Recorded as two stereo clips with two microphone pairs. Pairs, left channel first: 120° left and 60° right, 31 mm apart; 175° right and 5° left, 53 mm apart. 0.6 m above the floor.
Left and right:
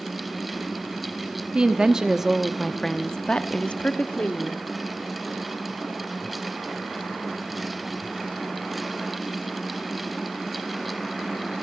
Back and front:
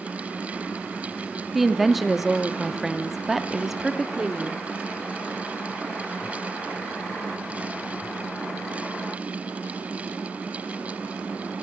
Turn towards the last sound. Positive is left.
turn(degrees=90)